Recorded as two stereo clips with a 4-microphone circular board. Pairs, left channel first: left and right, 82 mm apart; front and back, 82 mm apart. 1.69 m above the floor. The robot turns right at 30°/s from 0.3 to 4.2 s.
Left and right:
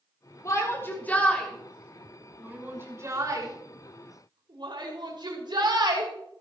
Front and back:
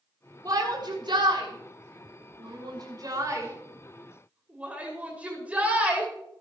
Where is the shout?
140° left, 6.5 m; by 6.1 s 110° right, 6.5 m.